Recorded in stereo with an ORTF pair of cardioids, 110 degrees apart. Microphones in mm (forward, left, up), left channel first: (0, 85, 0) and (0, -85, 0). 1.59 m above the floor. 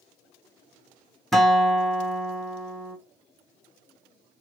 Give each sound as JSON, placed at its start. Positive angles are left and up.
{"t": 1.3, "sound": "a guitar", "azimuth_deg": 0, "distance_m": 0.8}